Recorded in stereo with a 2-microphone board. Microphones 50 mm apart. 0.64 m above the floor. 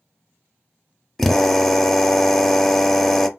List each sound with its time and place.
1.2 s a drill: 5° left (ahead or behind), 0.6 m